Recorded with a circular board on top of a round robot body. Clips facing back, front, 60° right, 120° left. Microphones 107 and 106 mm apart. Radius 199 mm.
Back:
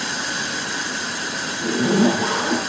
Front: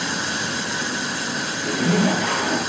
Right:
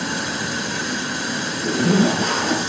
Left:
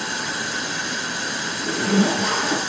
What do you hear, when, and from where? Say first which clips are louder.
1.6 s a zipper: back 3 dB, right 2 dB; 110° right, 5.5 m